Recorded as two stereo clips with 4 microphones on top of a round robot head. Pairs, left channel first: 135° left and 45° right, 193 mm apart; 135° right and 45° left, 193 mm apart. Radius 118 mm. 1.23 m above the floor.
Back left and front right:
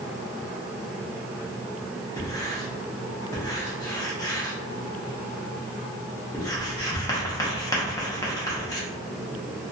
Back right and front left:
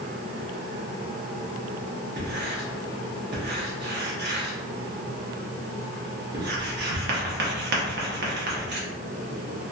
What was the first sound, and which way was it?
Writing, 65° left.